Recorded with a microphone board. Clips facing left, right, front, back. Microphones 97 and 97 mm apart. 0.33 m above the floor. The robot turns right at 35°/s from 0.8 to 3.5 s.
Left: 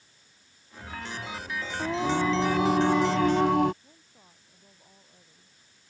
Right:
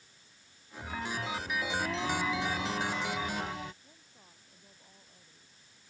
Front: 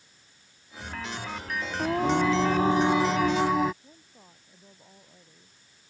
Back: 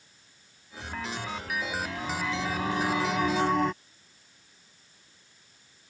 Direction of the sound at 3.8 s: 10° left.